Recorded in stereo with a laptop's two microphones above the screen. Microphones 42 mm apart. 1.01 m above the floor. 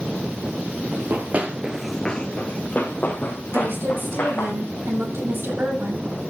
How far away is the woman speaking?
About 6.5 m.